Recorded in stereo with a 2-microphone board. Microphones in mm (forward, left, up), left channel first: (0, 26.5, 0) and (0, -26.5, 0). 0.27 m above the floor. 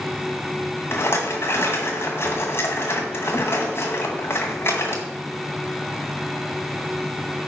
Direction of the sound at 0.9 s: 50° left (ahead or behind).